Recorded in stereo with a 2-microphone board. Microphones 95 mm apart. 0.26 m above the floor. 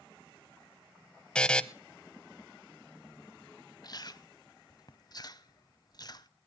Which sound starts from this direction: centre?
A buzzer, at 1.4 s.